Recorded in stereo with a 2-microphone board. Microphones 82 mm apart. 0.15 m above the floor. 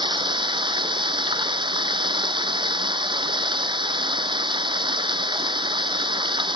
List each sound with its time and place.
0.0 s running water: 75° right (ahead or behind)